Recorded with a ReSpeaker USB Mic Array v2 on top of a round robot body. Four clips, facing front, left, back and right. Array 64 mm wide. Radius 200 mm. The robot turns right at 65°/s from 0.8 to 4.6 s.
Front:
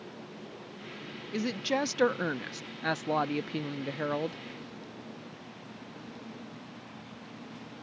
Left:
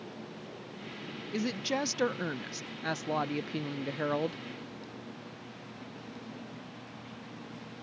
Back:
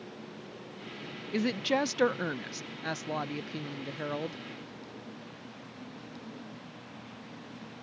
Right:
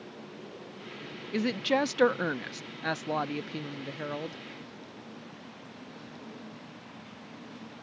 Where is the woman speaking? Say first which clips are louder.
Right 5 dB, back 2 dB; 130° right; by 4.4 s 65° left.